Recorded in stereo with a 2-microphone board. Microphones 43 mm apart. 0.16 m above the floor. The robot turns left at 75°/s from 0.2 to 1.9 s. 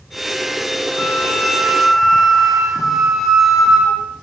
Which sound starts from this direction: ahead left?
A flute, at 1.0 s.